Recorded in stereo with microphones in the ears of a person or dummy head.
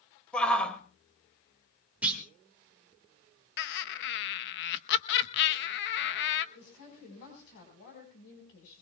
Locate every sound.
0.3 s a shout: 5° left (ahead or behind), 2 m
2.0 s a clunk: 10° right (ahead or behind), 2.5 m
3.6 s laughter: 60° left (ahead or behind), 1.0 m
6.5 s a woman speaking: 65° left (ahead or behind), 5 m